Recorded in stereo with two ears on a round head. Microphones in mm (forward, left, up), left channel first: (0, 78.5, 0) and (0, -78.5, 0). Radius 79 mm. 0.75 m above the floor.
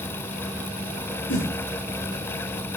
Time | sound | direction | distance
1.3 | a whoosh | 80° left | 4 m